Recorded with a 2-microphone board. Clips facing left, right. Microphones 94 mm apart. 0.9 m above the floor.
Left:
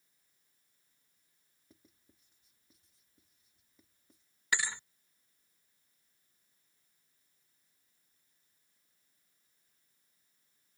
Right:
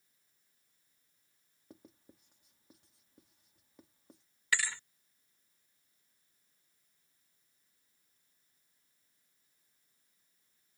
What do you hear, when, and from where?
1.7 s writing: 65° right (ahead or behind)
4.5 s a thud: 20° left (ahead or behind)